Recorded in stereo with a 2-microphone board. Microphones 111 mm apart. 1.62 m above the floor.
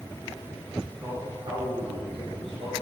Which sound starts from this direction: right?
A man speaking, at 1.0 s.